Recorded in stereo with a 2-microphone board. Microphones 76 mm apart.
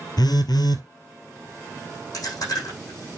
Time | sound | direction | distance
0.2 | a phone buzzing | 70° left (ahead or behind) | 1.0 m
2.1 | chewing | 55° left (ahead or behind) | 7 m